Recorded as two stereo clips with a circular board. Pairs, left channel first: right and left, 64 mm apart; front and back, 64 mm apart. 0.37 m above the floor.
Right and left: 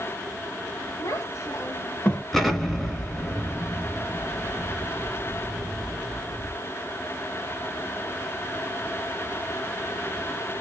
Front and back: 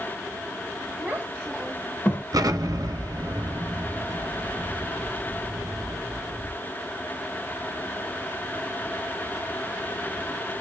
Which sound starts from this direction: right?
A child speaking, at 1.0 s.